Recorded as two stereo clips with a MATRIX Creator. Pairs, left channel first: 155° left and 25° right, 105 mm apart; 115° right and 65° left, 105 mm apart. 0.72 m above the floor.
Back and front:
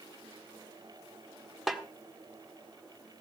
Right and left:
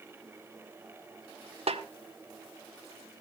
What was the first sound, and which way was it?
A snare drum, 65° left.